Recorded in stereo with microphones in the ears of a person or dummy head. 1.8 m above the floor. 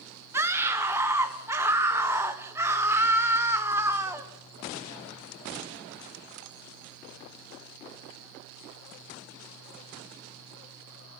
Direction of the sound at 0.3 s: 15° right (ahead or behind).